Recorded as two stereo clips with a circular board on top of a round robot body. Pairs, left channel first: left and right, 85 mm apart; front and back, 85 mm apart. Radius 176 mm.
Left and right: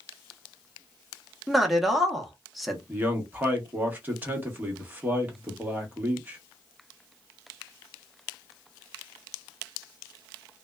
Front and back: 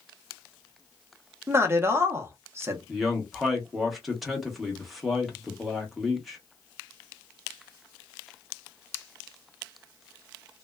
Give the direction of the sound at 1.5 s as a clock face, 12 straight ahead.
6 o'clock.